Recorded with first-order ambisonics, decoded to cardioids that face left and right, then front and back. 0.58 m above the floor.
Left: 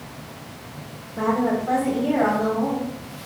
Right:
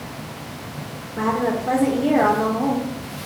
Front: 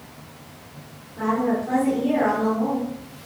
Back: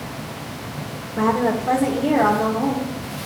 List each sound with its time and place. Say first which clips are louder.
1.2 s a woman speaking: right 1 dB, back 3 dB; 155° right, 1.8 m; by 3.3 s 100° right, 1.5 m